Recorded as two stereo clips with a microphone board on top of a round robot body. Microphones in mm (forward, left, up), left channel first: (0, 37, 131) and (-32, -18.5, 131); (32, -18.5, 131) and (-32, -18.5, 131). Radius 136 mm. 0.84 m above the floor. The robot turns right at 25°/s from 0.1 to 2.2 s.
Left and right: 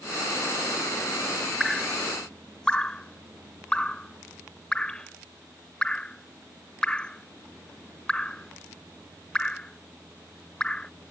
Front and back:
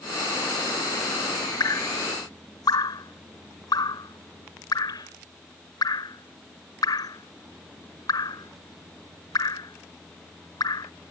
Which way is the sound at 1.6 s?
30° right.